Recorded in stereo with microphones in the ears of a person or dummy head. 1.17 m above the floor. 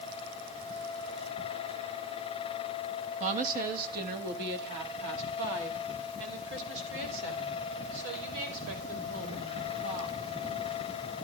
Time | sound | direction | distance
3.2 | a woman speaking | 40° right (ahead or behind) | 1.4 m